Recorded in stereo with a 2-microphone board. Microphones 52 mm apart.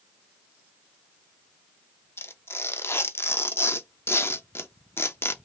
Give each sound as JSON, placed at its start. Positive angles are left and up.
{"t": 2.2, "sound": "tearing paper", "side_deg": 55, "distance_m": 0.5}